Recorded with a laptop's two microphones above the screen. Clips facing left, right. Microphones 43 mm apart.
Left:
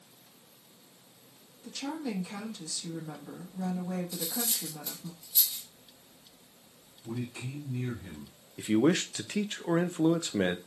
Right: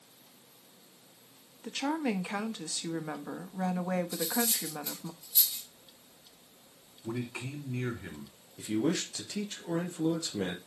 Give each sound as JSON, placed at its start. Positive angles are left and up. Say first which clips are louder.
{"t": 1.6, "sound": "a woman speaking", "louder": "right 4 dB", "side_deg": -50, "distance_m": 1.1}
{"t": 4.1, "sound": "cutlery clinking", "louder": "right 4 dB", "side_deg": -5, "distance_m": 1.9}
{"t": 7.0, "sound": "a man speaking", "louder": "right 1 dB", "side_deg": -70, "distance_m": 3.0}
{"t": 8.6, "sound": "a man speaking", "louder": "left 5 dB", "side_deg": 45, "distance_m": 0.7}